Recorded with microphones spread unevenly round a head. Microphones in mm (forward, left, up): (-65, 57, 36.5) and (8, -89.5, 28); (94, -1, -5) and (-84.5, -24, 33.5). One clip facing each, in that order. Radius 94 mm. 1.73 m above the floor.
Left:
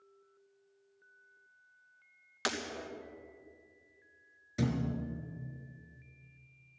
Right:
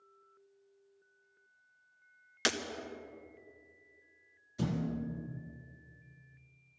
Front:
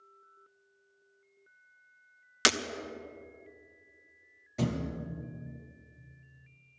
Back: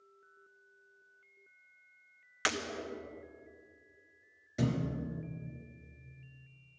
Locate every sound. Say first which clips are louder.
2.5 s breaking glass: right 2 dB, front 6 dB; straight ahead, 1.0 m
4.6 s a thud: left 1 dB, even; 115° left, 3.5 m